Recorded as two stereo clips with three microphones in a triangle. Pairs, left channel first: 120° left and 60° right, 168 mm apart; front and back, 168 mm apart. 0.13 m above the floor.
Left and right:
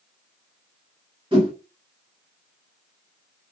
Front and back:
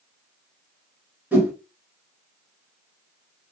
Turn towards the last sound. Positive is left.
turn(degrees=-105)